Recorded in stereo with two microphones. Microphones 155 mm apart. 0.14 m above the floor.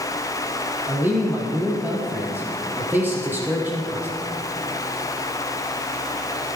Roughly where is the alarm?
I don't hear an alarm.